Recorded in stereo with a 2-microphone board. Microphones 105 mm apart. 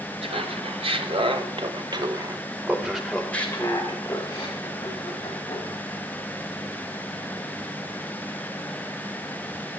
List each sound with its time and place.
0.2 s laughter: 65° right (ahead or behind), 2 m; by 5.8 s 45° left (ahead or behind), 2.5 m